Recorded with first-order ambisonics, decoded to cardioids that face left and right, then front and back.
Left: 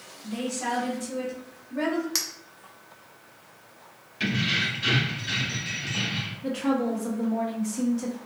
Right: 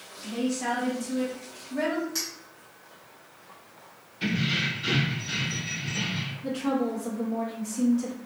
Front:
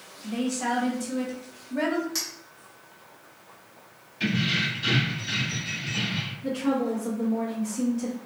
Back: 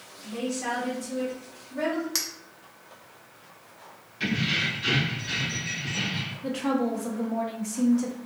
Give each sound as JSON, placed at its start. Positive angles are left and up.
{"t": 0.2, "sound": "a woman speaking", "azimuth_deg": 0, "distance_m": 1.0}
{"t": 2.1, "sound": "a clink", "azimuth_deg": 125, "distance_m": 0.6}
{"t": 4.2, "sound": "keys jangling", "azimuth_deg": 90, "distance_m": 1.7}
{"t": 6.4, "sound": "a woman speaking", "azimuth_deg": 145, "distance_m": 0.8}